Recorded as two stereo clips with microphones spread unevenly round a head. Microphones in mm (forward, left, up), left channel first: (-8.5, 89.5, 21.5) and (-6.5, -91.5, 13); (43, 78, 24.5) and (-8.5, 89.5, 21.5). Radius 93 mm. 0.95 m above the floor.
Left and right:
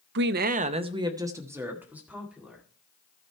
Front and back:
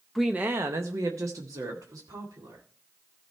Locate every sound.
0.1 s a woman speaking: 100° right, 0.5 m; by 2.6 s 175° right, 2 m